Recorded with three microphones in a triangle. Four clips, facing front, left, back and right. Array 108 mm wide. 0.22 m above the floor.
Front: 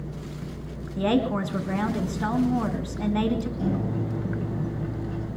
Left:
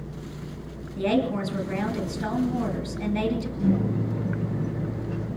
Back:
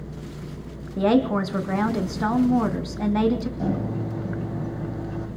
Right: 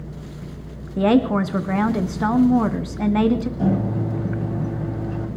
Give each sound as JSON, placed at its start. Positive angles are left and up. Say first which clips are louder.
{"t": 1.0, "sound": "a woman speaking", "louder": "right 7 dB, back 4 dB", "azimuth_deg": -115, "distance_m": 2.0}
{"t": 3.6, "sound": "a microwave", "louder": "right 3 dB, back 1 dB", "azimuth_deg": -110, "distance_m": 8.0}